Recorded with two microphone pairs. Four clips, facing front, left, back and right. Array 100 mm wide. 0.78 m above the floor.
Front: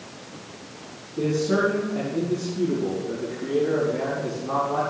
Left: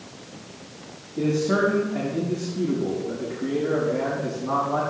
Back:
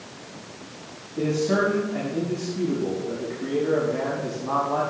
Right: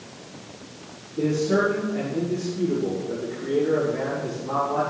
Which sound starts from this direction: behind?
A man speaking, at 1.2 s.